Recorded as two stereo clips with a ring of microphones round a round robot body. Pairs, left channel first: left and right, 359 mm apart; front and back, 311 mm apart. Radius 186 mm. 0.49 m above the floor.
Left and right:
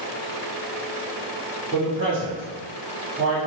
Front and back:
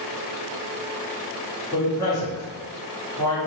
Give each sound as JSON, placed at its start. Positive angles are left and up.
{"t": 1.7, "sound": "a man speaking", "azimuth_deg": -70, "distance_m": 1.4}